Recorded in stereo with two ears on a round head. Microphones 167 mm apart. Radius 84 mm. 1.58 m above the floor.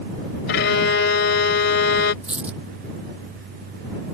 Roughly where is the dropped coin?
Centre.